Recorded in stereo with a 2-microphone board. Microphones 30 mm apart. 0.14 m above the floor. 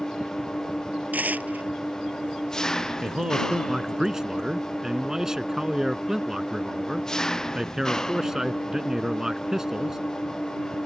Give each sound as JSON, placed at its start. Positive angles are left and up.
{"t": 0.0, "sound": "an engine running", "side_deg": 20}
{"t": 1.1, "sound": "tearing paper", "side_deg": -65}
{"t": 3.0, "sound": "a man speaking", "side_deg": -20}